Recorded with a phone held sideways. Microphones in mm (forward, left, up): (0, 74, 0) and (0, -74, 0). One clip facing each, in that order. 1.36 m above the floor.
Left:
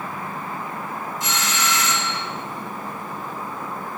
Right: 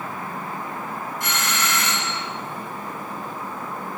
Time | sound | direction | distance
1.2 | a doorbell | 60° right (ahead or behind) | 6.5 m